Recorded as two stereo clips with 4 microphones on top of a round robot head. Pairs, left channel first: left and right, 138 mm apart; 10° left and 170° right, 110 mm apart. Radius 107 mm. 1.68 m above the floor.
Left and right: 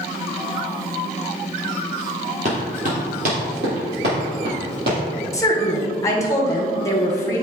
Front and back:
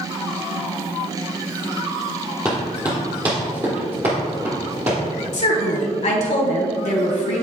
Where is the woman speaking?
20° left, 1.4 m.